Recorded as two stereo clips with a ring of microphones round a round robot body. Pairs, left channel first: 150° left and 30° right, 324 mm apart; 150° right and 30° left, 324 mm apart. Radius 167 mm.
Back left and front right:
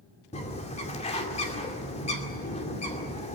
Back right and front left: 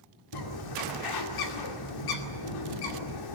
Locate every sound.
0.3 s a bird: 140° right, 2.5 m